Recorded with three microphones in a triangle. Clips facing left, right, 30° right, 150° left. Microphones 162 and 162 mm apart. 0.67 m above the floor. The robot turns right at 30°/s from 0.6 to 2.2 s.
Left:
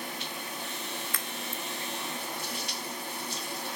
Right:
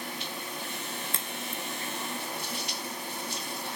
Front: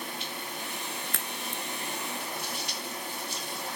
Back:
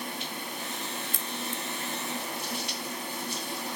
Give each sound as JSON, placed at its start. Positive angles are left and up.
{"t": 1.1, "sound": "a crack", "azimuth_deg": -30, "distance_m": 0.6}